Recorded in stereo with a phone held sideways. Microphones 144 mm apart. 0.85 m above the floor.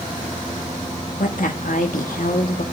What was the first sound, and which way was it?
A woman speaking, 70° left (ahead or behind).